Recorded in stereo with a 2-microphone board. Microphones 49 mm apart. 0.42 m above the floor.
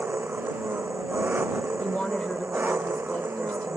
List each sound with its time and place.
0.0 s an engine running: 45° right (ahead or behind)
1.8 s a woman speaking: 25° left (ahead or behind)